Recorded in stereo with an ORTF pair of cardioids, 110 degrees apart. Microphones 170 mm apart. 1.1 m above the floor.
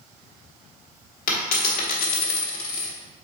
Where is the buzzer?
I don't hear a buzzer.